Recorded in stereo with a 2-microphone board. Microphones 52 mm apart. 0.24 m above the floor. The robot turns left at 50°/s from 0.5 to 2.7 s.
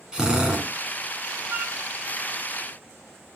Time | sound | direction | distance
0.1 | a drill | 15° right (ahead or behind) | 3 m
1.5 | a flute | 40° right (ahead or behind) | 0.7 m